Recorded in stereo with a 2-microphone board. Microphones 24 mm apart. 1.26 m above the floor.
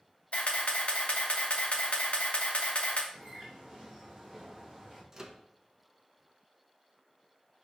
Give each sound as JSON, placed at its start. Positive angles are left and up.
{"t": 0.3, "sound": "a camera shutter", "side_deg": 65, "distance_m": 0.9}
{"t": 3.1, "sound": "a bird", "side_deg": -30, "distance_m": 2.0}
{"t": 5.1, "sound": "a microwave", "side_deg": -25, "distance_m": 0.5}